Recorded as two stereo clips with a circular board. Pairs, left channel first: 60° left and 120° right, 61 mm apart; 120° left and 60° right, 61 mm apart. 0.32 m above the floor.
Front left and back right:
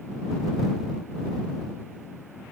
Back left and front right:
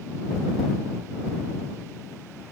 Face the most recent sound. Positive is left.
No sound to turn to.